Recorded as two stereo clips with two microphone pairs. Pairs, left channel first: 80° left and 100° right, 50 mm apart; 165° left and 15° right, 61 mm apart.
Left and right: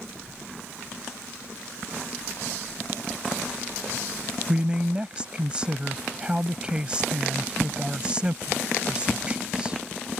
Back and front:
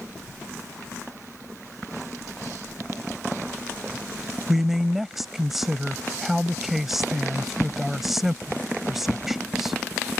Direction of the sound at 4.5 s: 95° right.